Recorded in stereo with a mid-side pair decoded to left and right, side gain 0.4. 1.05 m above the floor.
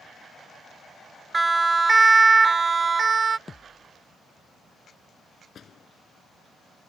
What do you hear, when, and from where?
1.3 s a siren: 20° right; by 3.4 s 45° right
3.5 s a thud: 30° left
5.5 s a door slam: 55° left